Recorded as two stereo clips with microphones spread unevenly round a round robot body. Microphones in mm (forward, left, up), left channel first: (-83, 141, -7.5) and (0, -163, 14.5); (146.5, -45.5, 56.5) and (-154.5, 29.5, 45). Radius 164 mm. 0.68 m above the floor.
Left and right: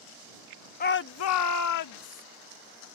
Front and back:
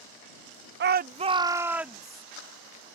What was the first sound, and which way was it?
A shout, 145° left.